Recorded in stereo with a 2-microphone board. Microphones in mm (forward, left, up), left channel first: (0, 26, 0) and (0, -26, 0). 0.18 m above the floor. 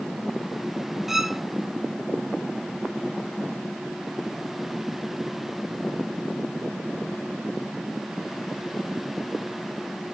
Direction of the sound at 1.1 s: 5° right (ahead or behind).